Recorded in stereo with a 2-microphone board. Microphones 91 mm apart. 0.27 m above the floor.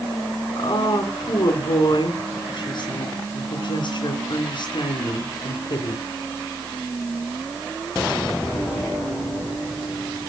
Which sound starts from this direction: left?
A woman speaking, at 0.6 s.